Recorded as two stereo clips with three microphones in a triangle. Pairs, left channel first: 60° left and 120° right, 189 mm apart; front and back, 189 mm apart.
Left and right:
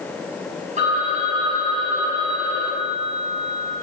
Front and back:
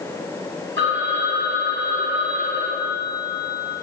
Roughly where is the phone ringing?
Behind.